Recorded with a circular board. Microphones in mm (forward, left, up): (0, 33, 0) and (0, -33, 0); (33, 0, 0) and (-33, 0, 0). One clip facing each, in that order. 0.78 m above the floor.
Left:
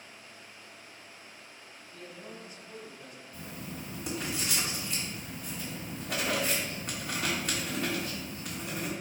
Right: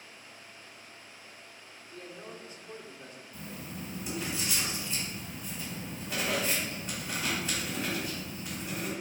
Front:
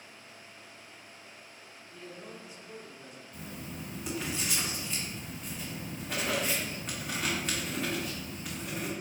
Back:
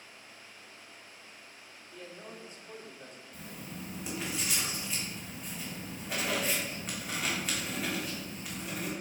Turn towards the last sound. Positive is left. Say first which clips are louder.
# even, front 2 dB
turn(degrees=95)